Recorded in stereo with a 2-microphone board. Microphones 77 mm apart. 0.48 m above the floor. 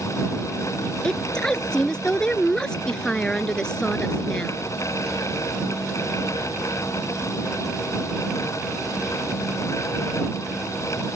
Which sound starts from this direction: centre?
A woman speaking, at 1.0 s.